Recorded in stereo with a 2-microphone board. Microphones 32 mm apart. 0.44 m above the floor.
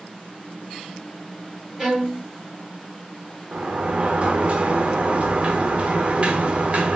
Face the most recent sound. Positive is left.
turn(degrees=-40)  # may be behind; listen again after turning